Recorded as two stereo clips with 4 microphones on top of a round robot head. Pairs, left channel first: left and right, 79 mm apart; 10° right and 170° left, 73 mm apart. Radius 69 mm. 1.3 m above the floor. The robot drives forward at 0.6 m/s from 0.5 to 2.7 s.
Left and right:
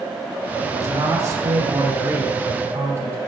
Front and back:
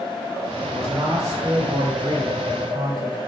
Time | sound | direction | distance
0.6 | a man speaking | 135° right | 1.9 m